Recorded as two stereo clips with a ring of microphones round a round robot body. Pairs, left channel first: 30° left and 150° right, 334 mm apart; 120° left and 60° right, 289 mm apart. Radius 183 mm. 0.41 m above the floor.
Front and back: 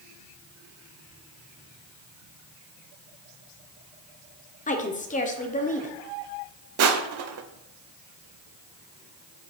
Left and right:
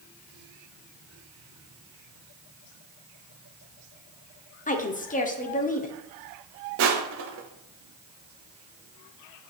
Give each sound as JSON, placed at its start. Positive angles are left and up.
{"t": 4.7, "sound": "a woman speaking", "azimuth_deg": 80, "distance_m": 1.1}
{"t": 6.8, "sound": "crushing", "azimuth_deg": -105, "distance_m": 0.8}